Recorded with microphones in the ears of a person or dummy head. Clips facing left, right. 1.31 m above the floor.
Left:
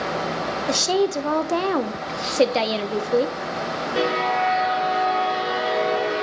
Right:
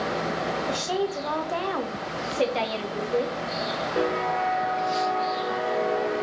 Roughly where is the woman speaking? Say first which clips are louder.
Left 10 dB; left.